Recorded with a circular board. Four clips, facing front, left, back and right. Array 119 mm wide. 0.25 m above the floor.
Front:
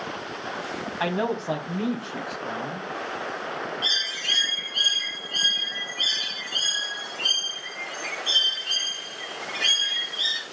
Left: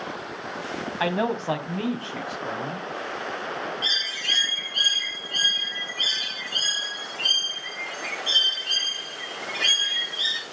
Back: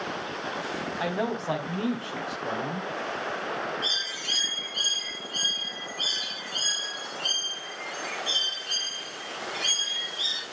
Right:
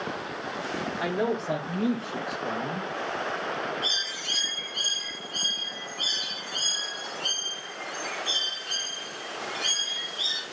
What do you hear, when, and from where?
1.0 s a man speaking: 70° left, 2.0 m; by 2.9 s 130° left, 3 m
3.8 s a bird: 65° left, 3.5 m